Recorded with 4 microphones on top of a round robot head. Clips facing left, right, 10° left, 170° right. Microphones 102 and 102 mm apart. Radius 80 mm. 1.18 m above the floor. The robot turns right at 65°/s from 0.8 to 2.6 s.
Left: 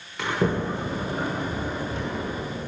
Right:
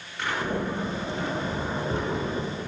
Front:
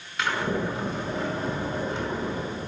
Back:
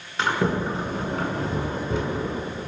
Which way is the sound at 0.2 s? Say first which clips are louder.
Left 3 dB, back 3 dB; 130° left.